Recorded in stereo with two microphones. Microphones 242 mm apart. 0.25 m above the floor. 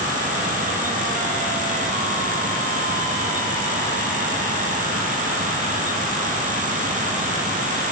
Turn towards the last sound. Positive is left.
No sound to turn to.